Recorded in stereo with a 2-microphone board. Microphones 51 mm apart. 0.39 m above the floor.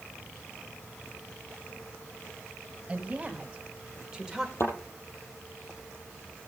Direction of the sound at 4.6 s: 55° left (ahead or behind).